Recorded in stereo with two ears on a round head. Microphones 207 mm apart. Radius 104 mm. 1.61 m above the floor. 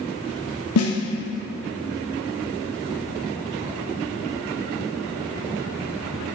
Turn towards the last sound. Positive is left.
turn(degrees=75)  # may be behind; listen again after turning